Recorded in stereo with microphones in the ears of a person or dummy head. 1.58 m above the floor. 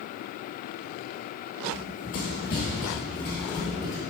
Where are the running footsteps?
35° left (ahead or behind), 1.9 m; by 4.0 s 5° left (ahead or behind), 2.5 m.